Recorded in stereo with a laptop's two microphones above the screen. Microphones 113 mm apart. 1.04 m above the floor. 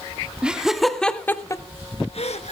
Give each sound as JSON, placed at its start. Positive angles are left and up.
{"t": 0.4, "sound": "laughter", "side_deg": -10, "distance_m": 2.5}